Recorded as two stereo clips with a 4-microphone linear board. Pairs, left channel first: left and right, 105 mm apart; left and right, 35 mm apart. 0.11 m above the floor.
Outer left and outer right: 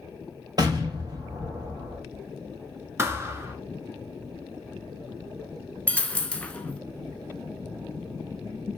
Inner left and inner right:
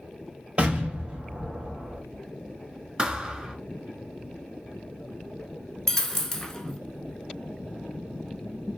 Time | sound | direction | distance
0.6 | an explosion | 40° right (ahead or behind) | 1.5 m
3.0 | a thud | 25° right (ahead or behind) | 0.8 m
5.9 | a dropped coin | 10° left (ahead or behind) | 0.5 m